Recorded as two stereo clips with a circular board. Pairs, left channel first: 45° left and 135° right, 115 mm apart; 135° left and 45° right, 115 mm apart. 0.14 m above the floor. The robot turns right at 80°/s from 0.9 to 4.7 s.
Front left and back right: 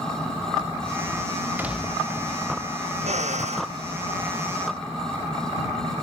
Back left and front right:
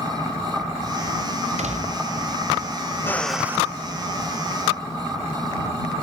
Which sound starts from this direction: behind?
A drill, at 3.0 s.